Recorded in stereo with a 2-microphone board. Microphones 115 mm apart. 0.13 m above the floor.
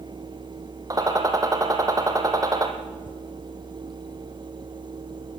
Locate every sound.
0.9 s a gunshot: 30° right (ahead or behind), 2.5 m